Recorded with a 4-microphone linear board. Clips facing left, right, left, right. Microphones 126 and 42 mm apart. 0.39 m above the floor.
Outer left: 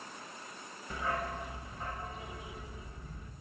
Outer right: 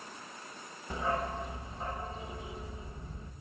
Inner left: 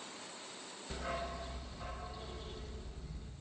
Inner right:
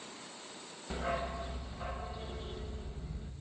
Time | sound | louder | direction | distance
0.9 | a dog barking | outer right 3 dB, inner right 5 dB | 25° right (ahead or behind) | 0.8 m